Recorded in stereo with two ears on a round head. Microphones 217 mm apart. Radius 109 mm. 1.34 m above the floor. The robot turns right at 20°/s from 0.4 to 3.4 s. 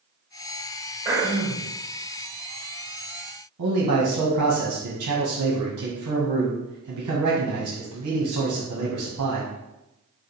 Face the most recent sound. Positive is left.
turn(degrees=-70)  # may be behind; listen again after turning